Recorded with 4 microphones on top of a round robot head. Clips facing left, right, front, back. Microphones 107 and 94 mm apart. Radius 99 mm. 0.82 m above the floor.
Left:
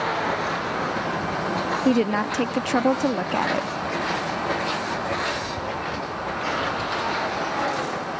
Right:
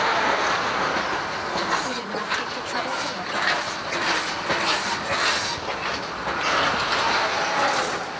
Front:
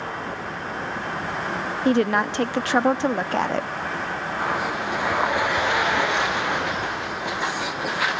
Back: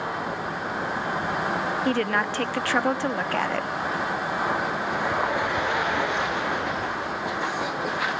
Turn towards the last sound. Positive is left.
turn(degrees=65)